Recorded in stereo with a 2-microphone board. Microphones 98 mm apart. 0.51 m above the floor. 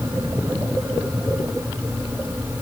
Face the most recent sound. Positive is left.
No sound to turn to.